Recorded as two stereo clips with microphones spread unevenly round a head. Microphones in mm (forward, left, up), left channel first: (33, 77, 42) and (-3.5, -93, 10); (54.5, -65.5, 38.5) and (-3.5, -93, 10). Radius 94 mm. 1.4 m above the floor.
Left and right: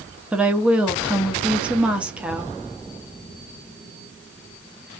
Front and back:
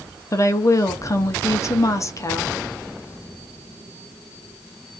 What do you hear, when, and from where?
0.3 s a woman speaking: 20° right, 0.6 m